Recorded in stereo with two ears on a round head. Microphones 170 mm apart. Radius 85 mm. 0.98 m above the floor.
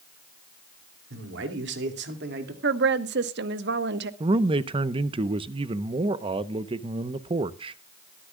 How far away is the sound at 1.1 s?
About 2.5 m.